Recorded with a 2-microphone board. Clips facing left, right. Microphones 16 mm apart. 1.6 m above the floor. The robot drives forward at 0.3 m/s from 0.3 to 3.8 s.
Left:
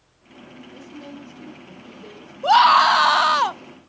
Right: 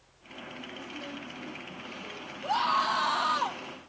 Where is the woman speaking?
45° left (ahead or behind), 4.5 m.